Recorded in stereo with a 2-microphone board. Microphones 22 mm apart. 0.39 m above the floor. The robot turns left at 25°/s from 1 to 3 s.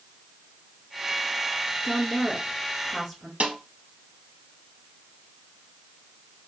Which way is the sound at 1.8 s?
10° left (ahead or behind).